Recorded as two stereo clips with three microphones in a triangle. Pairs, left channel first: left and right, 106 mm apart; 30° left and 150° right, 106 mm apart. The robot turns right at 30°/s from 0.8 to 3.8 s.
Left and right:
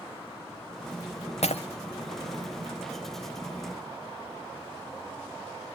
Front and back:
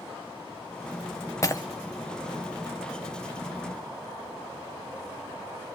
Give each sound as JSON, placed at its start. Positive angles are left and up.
{"t": 1.4, "sound": "breaking glass", "azimuth_deg": 90, "distance_m": 1.6}